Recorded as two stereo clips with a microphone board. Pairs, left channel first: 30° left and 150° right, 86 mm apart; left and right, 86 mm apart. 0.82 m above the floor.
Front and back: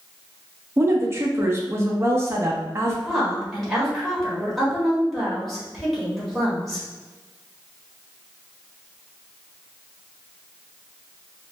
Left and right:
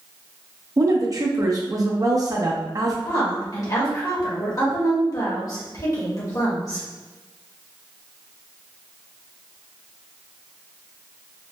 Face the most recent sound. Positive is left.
turn(degrees=120)